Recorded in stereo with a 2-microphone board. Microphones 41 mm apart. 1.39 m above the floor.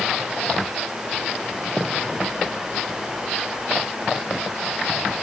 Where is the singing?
No singing in this recording.